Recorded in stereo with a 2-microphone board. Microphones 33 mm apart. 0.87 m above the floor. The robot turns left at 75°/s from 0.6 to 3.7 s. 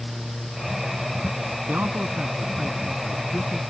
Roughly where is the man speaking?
Right.